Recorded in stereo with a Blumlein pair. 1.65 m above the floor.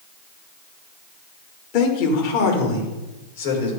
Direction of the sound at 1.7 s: 40° left.